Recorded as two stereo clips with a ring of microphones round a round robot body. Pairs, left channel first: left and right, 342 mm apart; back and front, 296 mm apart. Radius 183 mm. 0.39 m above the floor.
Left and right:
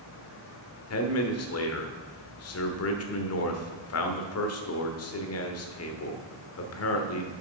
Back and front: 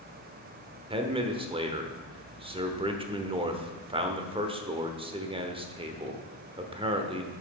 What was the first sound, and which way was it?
A man speaking, 65° left.